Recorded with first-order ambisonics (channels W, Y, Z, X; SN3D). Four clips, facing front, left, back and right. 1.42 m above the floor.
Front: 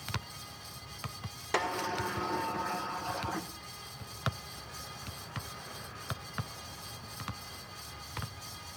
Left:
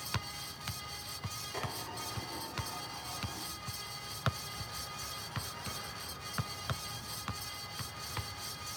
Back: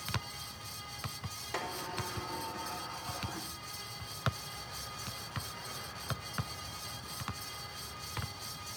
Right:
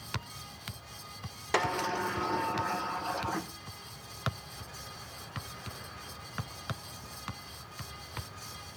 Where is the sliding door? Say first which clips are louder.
Right 13 dB, front 7 dB; 60° right, 0.9 m.